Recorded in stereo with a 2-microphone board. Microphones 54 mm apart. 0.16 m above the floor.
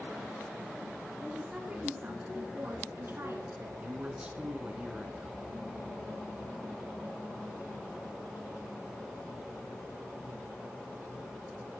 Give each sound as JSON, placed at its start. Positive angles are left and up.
{"t": 1.2, "sound": "a woman speaking", "side_deg": -20, "distance_m": 2.0}
{"t": 3.8, "sound": "a man speaking", "side_deg": -20, "distance_m": 2.0}